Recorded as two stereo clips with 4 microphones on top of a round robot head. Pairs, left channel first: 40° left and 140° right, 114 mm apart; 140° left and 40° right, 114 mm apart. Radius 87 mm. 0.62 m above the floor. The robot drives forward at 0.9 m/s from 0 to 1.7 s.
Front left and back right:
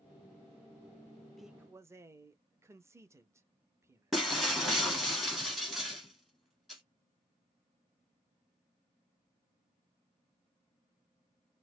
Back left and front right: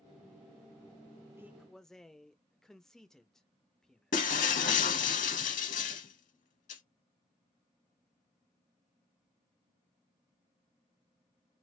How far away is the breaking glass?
About 0.8 m.